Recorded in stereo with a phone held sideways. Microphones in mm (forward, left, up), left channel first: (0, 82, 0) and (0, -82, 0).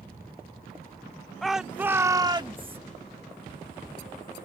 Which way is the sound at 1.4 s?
Centre (ahead or behind).